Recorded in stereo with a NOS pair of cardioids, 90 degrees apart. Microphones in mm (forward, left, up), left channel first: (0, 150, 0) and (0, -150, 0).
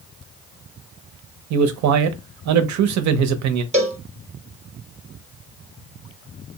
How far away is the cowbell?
About 0.7 m.